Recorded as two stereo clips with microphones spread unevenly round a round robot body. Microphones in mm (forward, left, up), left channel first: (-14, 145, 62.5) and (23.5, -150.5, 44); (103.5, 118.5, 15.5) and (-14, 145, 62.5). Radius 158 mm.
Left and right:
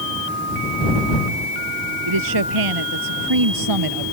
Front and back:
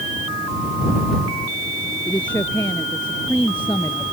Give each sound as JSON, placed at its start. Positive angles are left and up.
{"t": 2.1, "sound": "a woman speaking", "azimuth_deg": -90}